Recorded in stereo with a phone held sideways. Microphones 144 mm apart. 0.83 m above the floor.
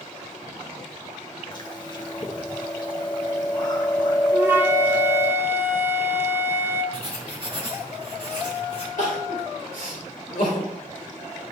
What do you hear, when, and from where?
1.5 s chewing: 35° left (ahead or behind), 0.9 m
4.3 s a flute: 15° right (ahead or behind), 0.9 m
6.9 s writing: 40° right (ahead or behind), 2 m
9.0 s crying: 75° left (ahead or behind), 3.5 m